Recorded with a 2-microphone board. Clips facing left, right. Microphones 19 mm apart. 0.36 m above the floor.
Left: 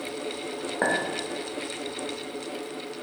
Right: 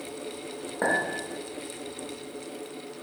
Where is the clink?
15° left (ahead or behind), 0.6 m.